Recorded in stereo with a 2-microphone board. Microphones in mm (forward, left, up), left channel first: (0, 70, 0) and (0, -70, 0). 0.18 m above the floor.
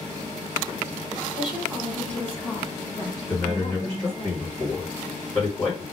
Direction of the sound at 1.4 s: 5° right (ahead or behind).